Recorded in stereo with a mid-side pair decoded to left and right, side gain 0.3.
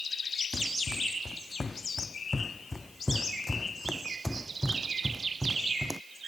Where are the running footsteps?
45° left; by 6.0 s 30° right.